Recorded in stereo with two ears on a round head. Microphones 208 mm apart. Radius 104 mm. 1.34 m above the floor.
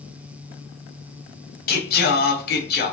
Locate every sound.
1.7 s singing: 40° left (ahead or behind), 0.5 m